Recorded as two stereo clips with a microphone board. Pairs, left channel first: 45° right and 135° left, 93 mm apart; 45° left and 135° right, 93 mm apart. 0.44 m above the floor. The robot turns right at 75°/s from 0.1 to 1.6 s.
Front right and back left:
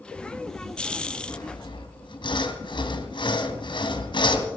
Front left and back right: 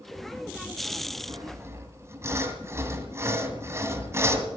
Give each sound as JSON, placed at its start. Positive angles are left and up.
{"t": 1.3, "sound": "sawing", "azimuth_deg": -100, "distance_m": 1.8}